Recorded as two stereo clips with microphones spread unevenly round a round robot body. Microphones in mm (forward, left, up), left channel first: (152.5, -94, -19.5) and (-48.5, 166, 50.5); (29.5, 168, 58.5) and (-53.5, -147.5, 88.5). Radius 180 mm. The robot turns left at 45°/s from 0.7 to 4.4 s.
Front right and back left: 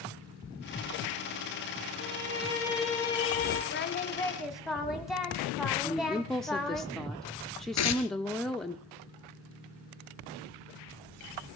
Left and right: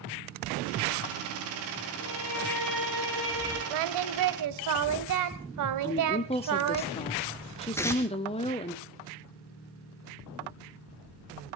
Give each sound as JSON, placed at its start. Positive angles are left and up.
{"t": 2.0, "sound": "a violin", "azimuth_deg": 75, "distance_m": 7.5}
{"t": 3.7, "sound": "singing", "azimuth_deg": -110, "distance_m": 1.2}
{"t": 5.8, "sound": "a woman speaking", "azimuth_deg": 20, "distance_m": 1.0}
{"t": 7.8, "sound": "tearing paper", "azimuth_deg": -10, "distance_m": 2.0}